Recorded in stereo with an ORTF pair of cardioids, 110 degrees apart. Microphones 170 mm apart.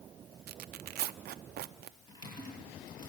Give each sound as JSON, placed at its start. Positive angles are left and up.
{"t": 0.5, "sound": "tearing paper", "azimuth_deg": -65, "distance_m": 0.6}
{"t": 2.1, "sound": "typing on a keyboard", "azimuth_deg": 25, "distance_m": 9.0}